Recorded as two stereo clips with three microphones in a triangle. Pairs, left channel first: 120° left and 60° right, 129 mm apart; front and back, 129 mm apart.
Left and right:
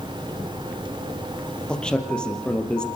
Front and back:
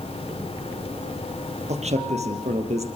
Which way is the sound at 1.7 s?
155° right.